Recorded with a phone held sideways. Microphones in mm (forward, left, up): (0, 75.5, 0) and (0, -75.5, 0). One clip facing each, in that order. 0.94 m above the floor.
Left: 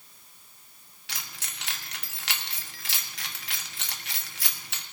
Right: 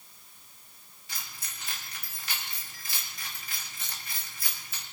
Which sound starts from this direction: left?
Keys jangling, at 1.1 s.